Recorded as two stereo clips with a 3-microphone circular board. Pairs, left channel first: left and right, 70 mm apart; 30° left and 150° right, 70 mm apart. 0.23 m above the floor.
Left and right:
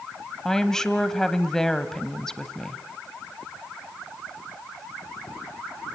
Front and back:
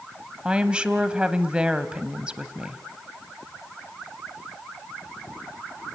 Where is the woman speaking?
160° left, 1.1 m.